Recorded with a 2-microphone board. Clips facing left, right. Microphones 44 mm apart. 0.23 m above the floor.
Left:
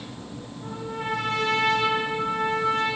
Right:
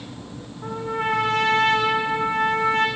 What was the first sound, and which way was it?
A trumpet, 45° right (ahead or behind).